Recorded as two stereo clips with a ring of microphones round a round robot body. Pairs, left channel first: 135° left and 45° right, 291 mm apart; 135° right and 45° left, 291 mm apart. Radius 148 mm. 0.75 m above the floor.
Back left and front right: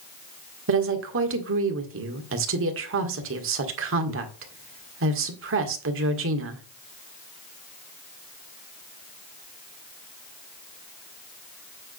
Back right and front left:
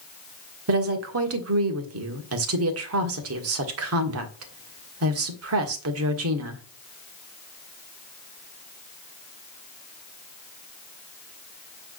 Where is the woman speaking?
Straight ahead, 1.7 m.